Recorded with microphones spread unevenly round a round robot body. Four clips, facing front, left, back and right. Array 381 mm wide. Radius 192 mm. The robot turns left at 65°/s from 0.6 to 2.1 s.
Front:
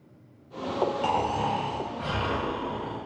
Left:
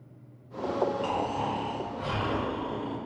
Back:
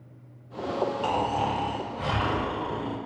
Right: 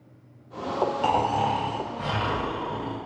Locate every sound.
1.0 s snoring: 90° right, 2.5 m; by 3.0 s 155° right, 2.5 m